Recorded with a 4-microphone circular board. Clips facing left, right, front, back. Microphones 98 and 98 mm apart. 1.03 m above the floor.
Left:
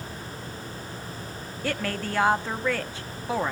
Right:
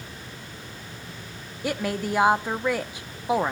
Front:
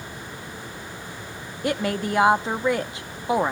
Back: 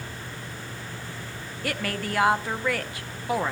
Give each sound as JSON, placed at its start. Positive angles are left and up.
{"t": 1.6, "sound": "a woman speaking", "azimuth_deg": -40, "distance_m": 0.8}